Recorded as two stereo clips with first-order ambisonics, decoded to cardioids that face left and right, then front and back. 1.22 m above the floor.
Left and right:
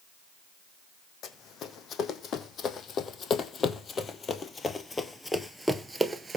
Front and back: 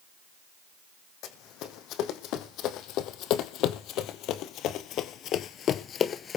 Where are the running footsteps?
35° left, 3.5 m; by 6.4 s 35° right, 1.3 m.